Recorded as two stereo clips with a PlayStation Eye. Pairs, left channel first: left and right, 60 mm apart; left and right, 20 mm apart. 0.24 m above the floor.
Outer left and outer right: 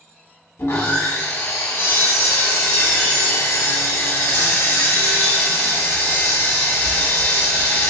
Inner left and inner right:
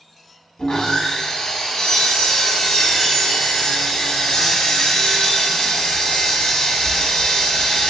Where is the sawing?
50° left (ahead or behind), 0.9 m.